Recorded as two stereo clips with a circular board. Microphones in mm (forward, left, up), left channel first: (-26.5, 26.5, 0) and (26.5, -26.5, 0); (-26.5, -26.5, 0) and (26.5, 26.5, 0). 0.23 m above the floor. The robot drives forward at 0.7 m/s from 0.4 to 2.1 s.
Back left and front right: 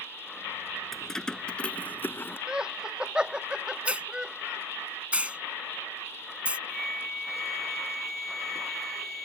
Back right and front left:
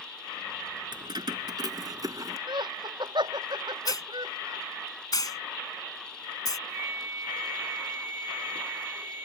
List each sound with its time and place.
0.9 s keys jangling: 50° left; by 2.4 s 75° left
2.5 s laughter: 35° left
3.9 s a hiss: 115° right
6.7 s a flute: 50° left